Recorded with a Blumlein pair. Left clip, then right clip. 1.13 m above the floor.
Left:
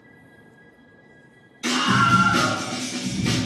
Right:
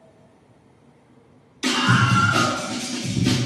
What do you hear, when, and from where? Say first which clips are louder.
1.6 s a scream: even; 40° right, 1.7 m; by 3.4 s 70° right, 3 m